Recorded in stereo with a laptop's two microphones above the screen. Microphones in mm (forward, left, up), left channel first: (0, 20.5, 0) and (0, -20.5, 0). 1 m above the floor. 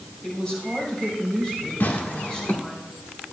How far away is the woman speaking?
About 6 m.